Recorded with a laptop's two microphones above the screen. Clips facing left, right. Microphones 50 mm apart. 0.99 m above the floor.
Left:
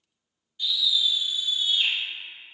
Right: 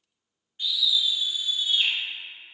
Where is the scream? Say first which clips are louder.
Even; 35° right (ahead or behind), 0.9 m; by 1.9 s 50° right (ahead or behind), 1.4 m.